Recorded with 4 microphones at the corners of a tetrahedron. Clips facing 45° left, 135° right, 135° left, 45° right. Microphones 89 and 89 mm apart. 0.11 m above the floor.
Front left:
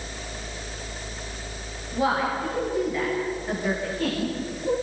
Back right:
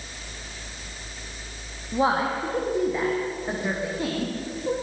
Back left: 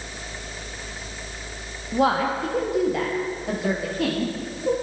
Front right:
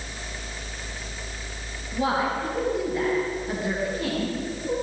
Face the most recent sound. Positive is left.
turn(degrees=150)